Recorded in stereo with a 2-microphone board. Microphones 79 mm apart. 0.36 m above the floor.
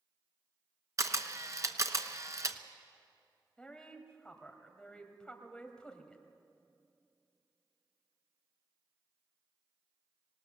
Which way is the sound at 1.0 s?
45° right (ahead or behind).